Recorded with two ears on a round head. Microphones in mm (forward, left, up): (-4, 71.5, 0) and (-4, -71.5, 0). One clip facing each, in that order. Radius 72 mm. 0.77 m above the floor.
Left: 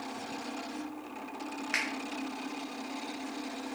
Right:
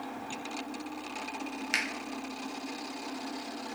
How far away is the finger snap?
About 0.5 m.